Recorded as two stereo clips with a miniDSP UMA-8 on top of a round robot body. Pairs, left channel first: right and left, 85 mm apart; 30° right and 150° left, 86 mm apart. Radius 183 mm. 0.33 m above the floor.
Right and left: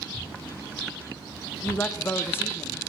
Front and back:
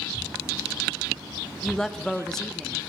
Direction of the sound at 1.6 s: 105° right.